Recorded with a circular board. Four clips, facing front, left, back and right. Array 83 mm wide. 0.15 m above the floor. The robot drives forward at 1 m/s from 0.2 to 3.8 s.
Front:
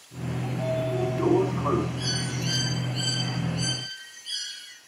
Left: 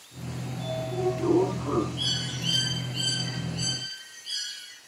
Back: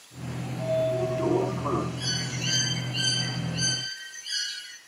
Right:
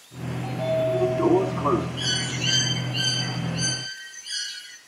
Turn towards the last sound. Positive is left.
turn(degrees=-140)